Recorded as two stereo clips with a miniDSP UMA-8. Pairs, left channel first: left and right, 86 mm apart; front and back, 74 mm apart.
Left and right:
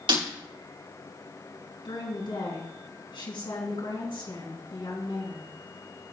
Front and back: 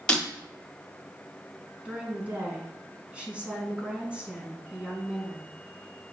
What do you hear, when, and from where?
0.1 s breaking glass: 80° right, 5 m
1.9 s a woman speaking: 105° left, 4 m